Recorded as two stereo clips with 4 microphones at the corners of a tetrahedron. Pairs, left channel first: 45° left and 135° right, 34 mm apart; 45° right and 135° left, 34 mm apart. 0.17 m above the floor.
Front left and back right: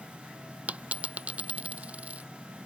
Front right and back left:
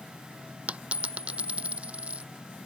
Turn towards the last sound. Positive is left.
turn(degrees=180)